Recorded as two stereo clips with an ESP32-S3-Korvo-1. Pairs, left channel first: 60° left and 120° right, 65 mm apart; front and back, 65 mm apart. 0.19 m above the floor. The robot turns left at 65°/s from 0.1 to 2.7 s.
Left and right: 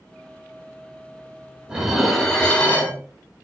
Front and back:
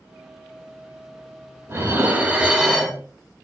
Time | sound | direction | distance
1.7 | dishes clattering | 170° left | 0.7 m